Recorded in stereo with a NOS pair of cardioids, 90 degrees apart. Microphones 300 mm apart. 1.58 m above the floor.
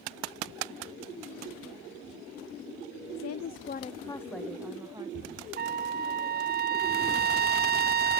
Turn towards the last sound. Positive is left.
turn(degrees=-30)